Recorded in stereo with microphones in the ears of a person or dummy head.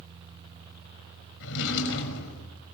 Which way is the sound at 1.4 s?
70° left (ahead or behind).